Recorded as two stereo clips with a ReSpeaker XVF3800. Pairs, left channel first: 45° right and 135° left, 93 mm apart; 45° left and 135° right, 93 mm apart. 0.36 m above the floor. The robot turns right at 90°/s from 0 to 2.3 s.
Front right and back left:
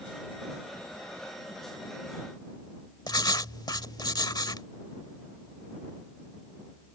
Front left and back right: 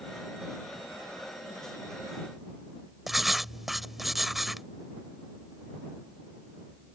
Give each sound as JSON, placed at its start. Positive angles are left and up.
{"t": 3.1, "sound": "writing", "azimuth_deg": -50}